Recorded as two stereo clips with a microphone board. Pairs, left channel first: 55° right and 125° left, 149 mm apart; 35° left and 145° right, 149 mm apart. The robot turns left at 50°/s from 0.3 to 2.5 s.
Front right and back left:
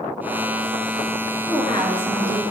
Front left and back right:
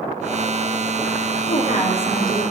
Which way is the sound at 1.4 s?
20° left.